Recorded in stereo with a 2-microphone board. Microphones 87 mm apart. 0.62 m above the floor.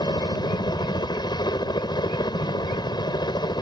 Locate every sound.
0.0 s a helicopter: 50° left (ahead or behind)